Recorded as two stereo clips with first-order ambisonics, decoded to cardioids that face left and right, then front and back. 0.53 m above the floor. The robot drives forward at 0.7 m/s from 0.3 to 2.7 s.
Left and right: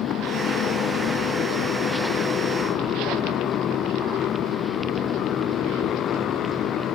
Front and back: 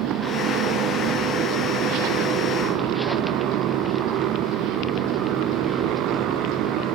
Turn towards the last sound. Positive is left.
turn(degrees=140)